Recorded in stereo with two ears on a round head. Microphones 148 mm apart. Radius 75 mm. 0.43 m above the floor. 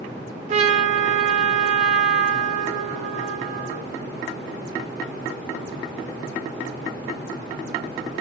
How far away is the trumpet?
About 0.6 m.